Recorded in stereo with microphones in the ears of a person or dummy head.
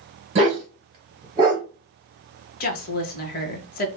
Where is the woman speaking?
40° left (ahead or behind), 1.1 m.